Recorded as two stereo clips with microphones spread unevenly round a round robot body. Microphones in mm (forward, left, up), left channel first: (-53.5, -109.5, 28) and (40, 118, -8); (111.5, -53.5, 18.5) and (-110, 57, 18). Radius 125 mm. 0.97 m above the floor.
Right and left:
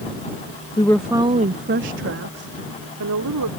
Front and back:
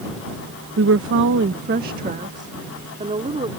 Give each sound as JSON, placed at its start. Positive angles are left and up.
{"t": 0.8, "sound": "a woman speaking", "azimuth_deg": 175}